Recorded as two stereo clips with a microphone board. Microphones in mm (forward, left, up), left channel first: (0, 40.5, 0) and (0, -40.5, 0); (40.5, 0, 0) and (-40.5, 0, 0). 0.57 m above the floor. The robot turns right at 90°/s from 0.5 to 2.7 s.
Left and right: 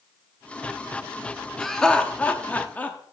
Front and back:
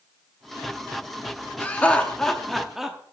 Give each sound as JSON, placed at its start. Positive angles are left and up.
{"t": 1.6, "sound": "laughter", "azimuth_deg": 5, "distance_m": 0.8}